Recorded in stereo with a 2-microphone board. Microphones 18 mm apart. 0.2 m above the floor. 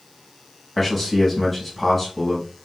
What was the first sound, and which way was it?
A man speaking, 10° left (ahead or behind).